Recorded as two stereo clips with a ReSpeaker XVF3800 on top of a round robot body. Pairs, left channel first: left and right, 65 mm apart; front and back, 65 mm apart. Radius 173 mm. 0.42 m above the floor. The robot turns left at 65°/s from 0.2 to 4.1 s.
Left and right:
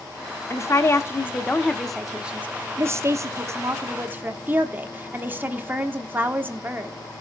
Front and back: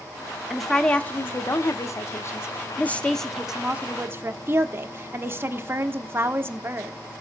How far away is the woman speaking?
About 1.5 m.